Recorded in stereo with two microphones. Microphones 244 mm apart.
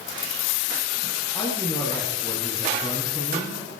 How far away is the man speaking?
About 7.5 m.